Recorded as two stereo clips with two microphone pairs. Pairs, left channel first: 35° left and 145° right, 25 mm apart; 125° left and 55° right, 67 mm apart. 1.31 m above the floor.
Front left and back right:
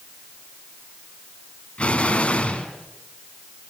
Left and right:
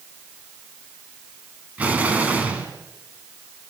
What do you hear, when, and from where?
1.8 s an explosion: 10° left, 3 m